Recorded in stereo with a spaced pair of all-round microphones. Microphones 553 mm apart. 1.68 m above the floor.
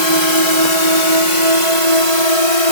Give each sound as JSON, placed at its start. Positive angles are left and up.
{"t": 0.0, "sound": "a drone", "side_deg": 50}